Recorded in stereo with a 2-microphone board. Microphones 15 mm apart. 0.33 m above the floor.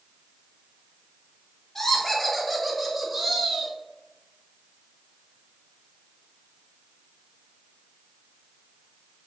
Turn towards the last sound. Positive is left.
turn(degrees=-30)  # may be behind; listen again after turning